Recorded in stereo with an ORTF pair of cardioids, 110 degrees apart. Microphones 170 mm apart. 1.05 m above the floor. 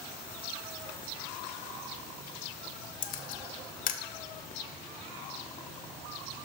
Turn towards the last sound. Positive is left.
turn(degrees=55)